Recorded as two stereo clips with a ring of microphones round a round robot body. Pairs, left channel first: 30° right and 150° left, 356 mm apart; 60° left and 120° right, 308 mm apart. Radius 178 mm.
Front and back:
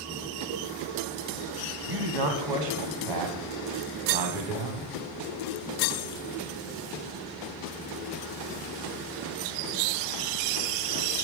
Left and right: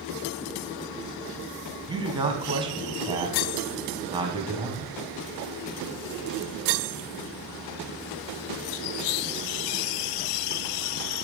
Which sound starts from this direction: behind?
A man speaking, at 1.9 s.